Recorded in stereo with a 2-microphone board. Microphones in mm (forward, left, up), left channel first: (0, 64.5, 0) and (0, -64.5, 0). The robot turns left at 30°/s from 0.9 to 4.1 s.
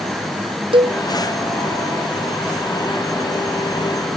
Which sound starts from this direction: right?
A cowbell, at 0.7 s.